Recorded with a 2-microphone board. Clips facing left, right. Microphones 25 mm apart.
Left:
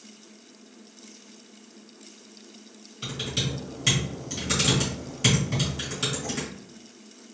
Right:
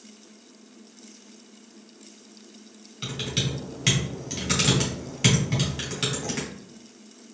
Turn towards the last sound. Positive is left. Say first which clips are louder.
# right 1 dB
turn(degrees=-35)  # may be behind; listen again after turning